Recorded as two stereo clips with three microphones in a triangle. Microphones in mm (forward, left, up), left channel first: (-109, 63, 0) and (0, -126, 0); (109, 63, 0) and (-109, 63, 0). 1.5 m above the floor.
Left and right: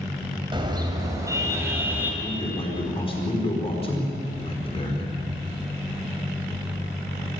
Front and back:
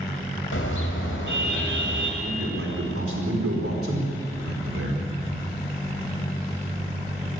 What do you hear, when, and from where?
0.5 s a car horn: 5° left, 3.5 m; by 2.1 s 20° left, 3.5 m
2.2 s a man speaking: 175° right, 4.5 m